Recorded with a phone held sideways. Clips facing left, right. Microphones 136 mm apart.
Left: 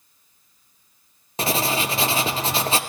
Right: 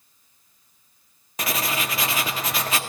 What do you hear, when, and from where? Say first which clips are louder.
1.4 s writing: left 4 dB; 30° left (ahead or behind), 0.6 m